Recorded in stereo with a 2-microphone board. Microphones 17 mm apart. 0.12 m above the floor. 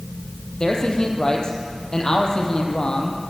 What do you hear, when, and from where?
0.6 s a man speaking: 40° left (ahead or behind), 3 m